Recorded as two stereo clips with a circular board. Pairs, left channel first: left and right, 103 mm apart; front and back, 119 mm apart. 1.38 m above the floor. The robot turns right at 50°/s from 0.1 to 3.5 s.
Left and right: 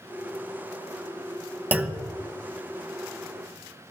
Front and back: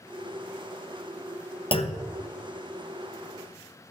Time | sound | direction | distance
1.7 | a clunk | 25° right | 0.7 m